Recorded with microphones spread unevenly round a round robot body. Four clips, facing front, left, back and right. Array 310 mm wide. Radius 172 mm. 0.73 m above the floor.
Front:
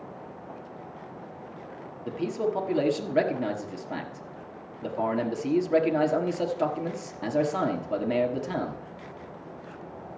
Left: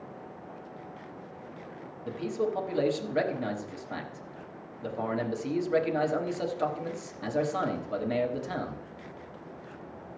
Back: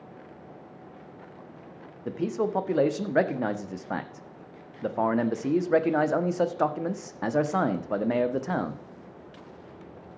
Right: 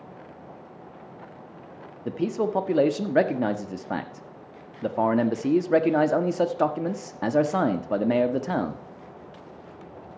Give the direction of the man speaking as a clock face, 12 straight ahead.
3 o'clock.